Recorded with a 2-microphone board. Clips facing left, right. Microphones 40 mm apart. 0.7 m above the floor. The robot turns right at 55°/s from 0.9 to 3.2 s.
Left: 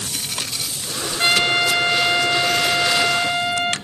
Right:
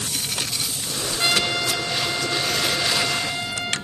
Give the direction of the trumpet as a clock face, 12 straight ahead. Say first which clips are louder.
Left 5 dB; 11 o'clock.